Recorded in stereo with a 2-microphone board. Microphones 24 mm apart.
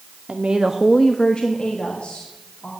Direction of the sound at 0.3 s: 60° right (ahead or behind).